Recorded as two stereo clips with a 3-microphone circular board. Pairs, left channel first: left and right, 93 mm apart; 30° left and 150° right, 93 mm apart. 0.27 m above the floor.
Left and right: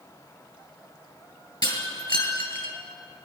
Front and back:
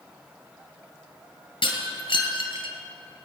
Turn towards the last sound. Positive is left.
turn(degrees=55)